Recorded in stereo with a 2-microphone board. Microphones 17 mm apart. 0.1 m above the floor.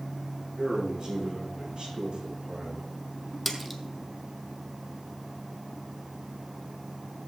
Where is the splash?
Centre (ahead or behind), 1.4 m.